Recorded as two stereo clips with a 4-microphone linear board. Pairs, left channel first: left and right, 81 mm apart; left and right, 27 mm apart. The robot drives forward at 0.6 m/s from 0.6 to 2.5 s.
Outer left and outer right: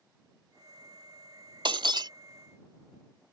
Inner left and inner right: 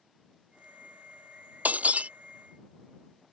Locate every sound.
1.6 s breaking glass: 80° right; by 2.1 s 60° right (ahead or behind)